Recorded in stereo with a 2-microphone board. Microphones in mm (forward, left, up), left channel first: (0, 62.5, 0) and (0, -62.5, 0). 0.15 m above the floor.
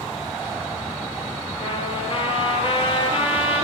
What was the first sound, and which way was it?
A trumpet, 45° left (ahead or behind).